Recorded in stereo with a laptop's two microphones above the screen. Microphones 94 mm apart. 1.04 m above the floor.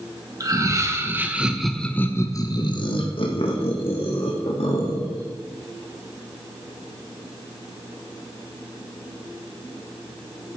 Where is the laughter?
35° right (ahead or behind), 1.6 m; by 5.2 s 75° left (ahead or behind), 3 m.